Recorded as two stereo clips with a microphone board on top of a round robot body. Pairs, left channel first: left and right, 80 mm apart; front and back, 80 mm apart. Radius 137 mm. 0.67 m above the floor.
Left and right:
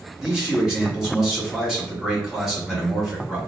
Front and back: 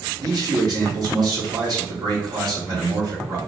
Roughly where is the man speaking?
Behind.